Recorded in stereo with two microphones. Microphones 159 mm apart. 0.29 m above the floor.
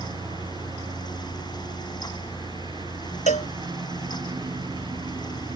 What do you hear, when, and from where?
0.0 s a lawn mower: 25° right (ahead or behind)
3.3 s a cowbell: 45° left (ahead or behind)